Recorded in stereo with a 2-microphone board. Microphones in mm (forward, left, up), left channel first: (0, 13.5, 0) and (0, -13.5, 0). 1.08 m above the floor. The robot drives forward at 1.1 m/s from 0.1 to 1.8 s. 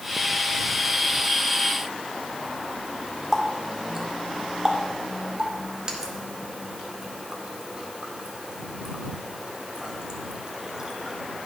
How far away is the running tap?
About 1.9 m.